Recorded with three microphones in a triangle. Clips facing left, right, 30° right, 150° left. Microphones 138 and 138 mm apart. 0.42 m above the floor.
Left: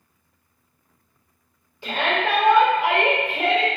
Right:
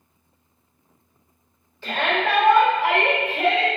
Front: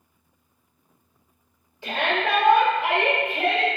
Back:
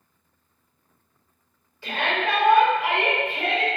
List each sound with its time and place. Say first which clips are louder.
1.8 s a shout: even, front 1 dB; 25° left, 1.5 m